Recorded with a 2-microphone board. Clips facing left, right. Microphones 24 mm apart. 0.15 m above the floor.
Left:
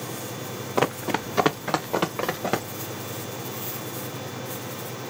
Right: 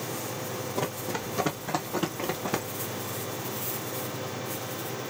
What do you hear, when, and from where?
0.8 s running footsteps: 65° left (ahead or behind), 0.5 m; by 2.6 s 75° left (ahead or behind), 2.5 m